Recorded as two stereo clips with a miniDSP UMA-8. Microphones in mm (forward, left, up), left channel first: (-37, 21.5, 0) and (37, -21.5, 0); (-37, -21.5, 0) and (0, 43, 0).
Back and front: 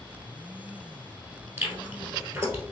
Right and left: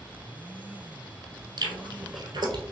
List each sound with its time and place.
1.6 s chewing: 40° left, 1.1 m